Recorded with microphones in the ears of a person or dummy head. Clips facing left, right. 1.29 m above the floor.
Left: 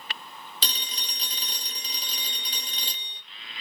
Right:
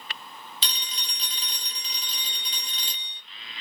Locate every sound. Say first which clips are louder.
0.6 s a phone ringing: left 1 dB; 35° left (ahead or behind), 0.9 m